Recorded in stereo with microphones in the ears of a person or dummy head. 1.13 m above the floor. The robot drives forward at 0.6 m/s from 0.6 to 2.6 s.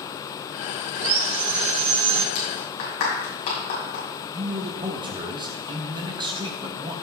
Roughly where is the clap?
Left.